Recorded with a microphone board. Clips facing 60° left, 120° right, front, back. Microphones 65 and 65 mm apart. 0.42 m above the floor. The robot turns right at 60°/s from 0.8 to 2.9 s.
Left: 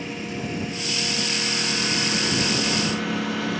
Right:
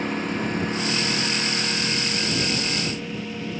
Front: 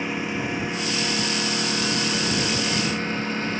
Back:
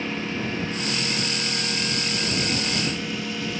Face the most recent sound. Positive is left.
turn(degrees=55)